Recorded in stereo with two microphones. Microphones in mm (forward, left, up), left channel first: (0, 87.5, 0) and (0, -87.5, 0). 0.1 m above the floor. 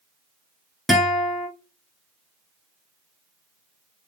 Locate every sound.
0.9 s a guitar: centre (ahead or behind), 1.0 m